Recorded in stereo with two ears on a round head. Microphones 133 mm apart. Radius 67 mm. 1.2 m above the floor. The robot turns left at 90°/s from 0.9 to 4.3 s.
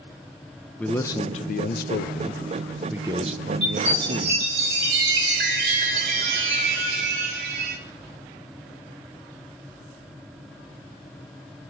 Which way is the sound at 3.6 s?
40° right.